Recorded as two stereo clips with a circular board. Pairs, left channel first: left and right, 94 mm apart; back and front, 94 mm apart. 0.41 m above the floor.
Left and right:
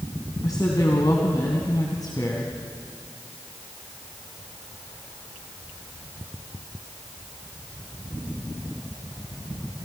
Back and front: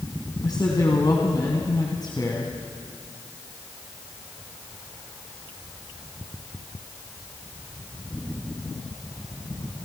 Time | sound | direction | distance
0.4 | a woman speaking | 135° left | 3 m